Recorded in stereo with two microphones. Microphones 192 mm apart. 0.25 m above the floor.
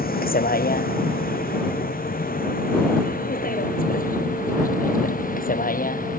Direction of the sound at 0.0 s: 50° left (ahead or behind).